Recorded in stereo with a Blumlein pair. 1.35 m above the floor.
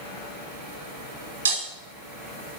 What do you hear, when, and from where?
1.4 s breaking glass: 70° right, 2 m